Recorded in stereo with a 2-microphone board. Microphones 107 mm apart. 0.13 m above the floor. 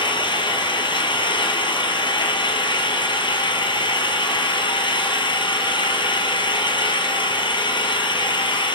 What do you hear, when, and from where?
0.0 s an engine running: 50° left (ahead or behind), 1.1 m